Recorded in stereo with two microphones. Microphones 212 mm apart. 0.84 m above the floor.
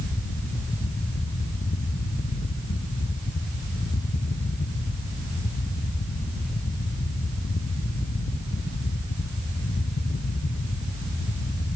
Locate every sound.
Only background noise.